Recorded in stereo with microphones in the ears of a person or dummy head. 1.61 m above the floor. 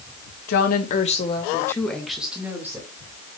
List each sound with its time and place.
0.5 s a woman speaking: 60° left (ahead or behind), 1.8 m; by 2.9 s 15° right (ahead or behind), 2.5 m